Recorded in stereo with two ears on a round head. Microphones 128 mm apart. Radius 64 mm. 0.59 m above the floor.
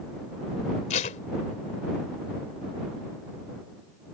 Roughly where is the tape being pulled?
Left.